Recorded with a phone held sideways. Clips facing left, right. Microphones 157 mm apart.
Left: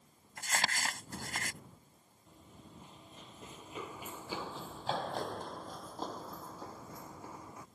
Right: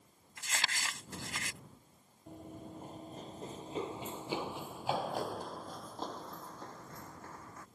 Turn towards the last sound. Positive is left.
turn(degrees=15)  # may be behind; listen again after turning